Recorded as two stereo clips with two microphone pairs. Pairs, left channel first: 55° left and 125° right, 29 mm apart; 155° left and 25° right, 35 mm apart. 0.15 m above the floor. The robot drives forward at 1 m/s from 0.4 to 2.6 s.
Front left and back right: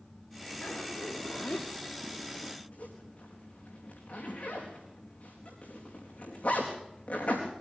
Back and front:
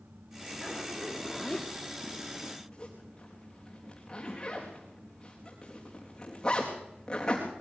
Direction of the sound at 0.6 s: 65° left.